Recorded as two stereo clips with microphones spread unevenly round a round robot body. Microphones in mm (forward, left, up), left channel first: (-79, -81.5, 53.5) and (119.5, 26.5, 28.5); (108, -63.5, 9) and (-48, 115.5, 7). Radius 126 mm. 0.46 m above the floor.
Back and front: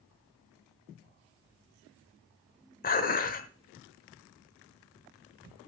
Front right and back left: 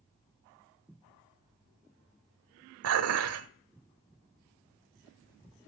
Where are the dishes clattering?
155° left, 1.3 m.